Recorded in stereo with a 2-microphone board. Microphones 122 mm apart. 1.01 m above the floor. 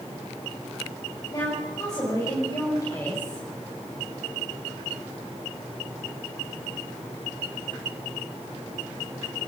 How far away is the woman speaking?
About 7 m.